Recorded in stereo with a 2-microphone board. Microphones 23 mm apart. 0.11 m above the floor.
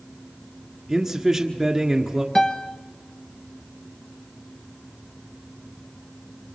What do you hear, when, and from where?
0.9 s a man speaking: 15° right (ahead or behind), 1.4 m
2.4 s a piano: 25° left (ahead or behind), 1.1 m